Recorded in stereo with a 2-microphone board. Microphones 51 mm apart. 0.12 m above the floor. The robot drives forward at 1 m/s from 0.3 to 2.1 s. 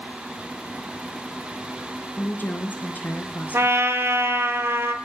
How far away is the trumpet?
About 1.1 m.